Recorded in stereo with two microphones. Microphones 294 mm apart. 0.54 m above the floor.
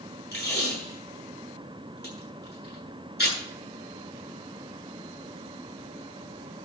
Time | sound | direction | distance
0.3 | tape being pulled | 35° left (ahead or behind) | 8.5 m